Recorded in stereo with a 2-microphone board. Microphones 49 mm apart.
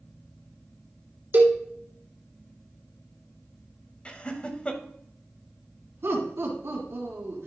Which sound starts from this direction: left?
Laughter, at 4.0 s.